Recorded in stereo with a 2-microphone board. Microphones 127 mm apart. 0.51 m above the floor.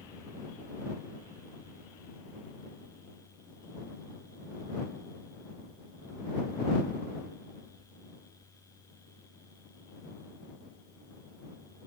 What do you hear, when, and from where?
Only background noise.